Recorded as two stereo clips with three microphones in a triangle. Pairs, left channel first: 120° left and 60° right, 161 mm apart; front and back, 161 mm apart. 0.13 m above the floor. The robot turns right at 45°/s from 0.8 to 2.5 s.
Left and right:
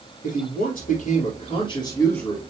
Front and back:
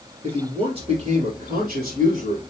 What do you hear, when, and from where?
0.2 s a man speaking: 130° left, 2 m; by 2.4 s 160° right, 2 m